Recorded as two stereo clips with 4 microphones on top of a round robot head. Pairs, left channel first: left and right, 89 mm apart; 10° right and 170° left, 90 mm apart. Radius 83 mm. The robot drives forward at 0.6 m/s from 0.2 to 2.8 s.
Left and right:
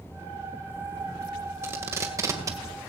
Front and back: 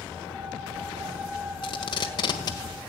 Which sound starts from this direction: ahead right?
Tape being pulled, at 1.6 s.